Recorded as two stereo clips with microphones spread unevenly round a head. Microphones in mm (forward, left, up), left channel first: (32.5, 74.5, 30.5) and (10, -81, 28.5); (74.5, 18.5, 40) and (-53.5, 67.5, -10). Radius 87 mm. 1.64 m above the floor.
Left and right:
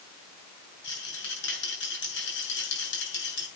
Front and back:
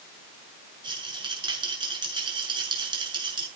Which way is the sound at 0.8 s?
100° left.